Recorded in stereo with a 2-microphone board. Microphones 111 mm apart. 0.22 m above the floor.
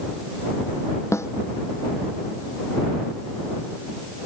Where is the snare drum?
25° left (ahead or behind).